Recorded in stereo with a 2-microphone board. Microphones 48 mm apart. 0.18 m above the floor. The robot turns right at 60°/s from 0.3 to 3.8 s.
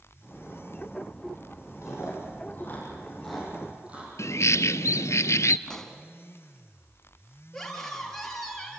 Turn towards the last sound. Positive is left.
turn(degrees=5)  # may be behind; listen again after turning